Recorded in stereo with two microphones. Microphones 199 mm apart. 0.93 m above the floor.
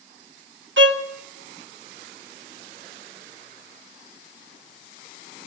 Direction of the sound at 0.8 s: 70° right (ahead or behind).